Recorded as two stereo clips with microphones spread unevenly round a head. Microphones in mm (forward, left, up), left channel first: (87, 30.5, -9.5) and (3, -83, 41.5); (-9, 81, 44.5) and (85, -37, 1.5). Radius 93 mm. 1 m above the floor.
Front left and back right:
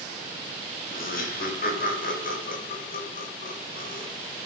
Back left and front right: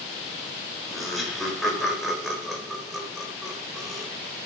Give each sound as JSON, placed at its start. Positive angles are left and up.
{"t": 0.9, "sound": "laughter", "azimuth_deg": 40, "distance_m": 4.0}